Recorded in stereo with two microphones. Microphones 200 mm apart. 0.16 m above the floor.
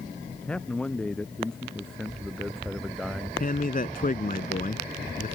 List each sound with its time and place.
0.4 s a man speaking: 5° left (ahead or behind); by 3.3 s centre (ahead or behind)
3.4 s a man speaking: 45° left (ahead or behind)